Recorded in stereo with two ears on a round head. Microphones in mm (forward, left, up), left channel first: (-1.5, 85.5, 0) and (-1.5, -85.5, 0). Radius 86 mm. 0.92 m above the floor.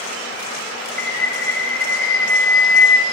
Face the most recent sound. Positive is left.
turn(degrees=10)  # may be behind; listen again after turning